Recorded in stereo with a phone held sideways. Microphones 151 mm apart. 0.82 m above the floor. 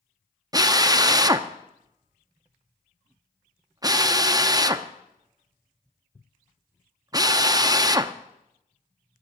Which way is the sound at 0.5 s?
25° right (ahead or behind).